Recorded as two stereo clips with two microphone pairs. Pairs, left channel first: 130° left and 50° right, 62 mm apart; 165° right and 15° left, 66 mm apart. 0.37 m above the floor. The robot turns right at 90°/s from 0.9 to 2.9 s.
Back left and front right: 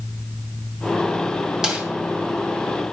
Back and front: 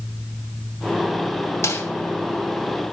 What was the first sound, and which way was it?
A snare drum, 130° right.